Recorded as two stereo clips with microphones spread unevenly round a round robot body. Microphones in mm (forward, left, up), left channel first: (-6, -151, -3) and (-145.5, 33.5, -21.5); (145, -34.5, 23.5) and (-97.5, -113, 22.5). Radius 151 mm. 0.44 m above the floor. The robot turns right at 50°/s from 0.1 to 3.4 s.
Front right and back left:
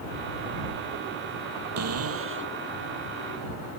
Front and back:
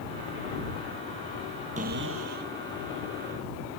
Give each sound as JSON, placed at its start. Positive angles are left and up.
{"t": 1.8, "sound": "a cupboard door", "azimuth_deg": 130}